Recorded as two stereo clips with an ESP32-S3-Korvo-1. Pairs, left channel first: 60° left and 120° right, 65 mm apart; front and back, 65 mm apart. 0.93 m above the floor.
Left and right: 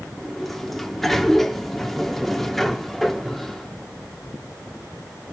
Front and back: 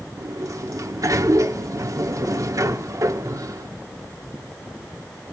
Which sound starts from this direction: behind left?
A sliding door, at 0.2 s.